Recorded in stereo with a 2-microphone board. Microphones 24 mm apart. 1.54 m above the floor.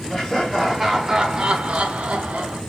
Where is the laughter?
5° left (ahead or behind), 0.8 m; by 2.6 s 60° right (ahead or behind), 0.8 m.